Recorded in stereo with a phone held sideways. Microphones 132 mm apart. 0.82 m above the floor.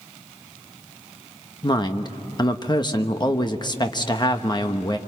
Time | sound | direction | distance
1.6 | a woman speaking | 30° left (ahead or behind) | 1.1 m